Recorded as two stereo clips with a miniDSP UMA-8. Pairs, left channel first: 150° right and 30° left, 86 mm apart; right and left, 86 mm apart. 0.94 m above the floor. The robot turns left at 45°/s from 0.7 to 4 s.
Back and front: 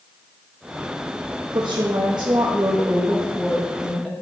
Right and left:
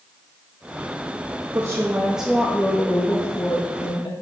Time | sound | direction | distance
1.5 | a woman speaking | 40° left | 1.0 m